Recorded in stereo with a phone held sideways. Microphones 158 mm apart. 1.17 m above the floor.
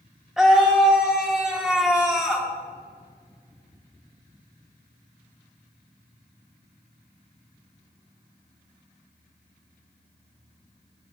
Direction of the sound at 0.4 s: 5° right (ahead or behind).